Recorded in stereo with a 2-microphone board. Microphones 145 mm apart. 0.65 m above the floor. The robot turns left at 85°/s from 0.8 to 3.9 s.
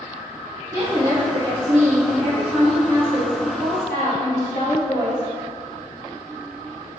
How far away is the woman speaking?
About 1.8 m.